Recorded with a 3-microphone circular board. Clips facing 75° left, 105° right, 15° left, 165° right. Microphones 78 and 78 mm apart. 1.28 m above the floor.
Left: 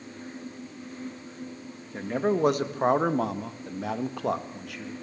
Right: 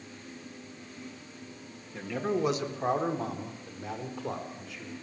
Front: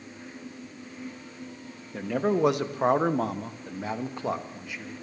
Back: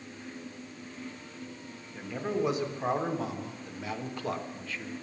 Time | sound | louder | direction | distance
1.9 | a man speaking | left 5 dB, front 7 dB | 25° left | 1.6 m